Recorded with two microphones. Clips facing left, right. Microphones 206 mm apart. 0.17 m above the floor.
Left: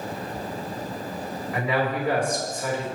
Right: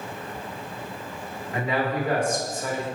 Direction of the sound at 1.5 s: 30° right (ahead or behind).